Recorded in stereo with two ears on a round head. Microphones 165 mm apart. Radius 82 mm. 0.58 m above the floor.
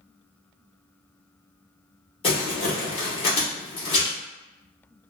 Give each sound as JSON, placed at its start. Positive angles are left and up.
{"t": 2.2, "sound": "crumpling", "side_deg": 30, "distance_m": 1.3}